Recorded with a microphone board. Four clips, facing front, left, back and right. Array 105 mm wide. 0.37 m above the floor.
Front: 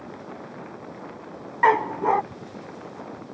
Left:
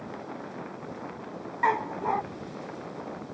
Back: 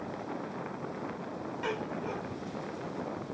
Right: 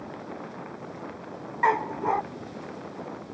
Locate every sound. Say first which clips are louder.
1.6 s a dog barking: right 2 dB, front 17 dB; 10° right